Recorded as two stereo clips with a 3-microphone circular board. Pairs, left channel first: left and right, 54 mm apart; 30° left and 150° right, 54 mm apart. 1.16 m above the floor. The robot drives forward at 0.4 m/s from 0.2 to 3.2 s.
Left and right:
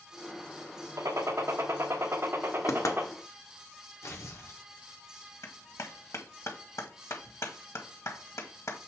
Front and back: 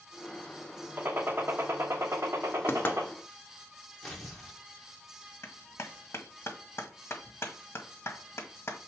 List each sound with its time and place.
1.0 s a gunshot: 100° right, 1.2 m; by 3.1 s 135° right, 1.5 m
2.7 s knocking: 75° left, 1.0 m; by 3.0 s 85° left, 1.0 m
4.0 s tearing paper: 115° left, 1.7 m
5.4 s a clap: 70° left, 1.5 m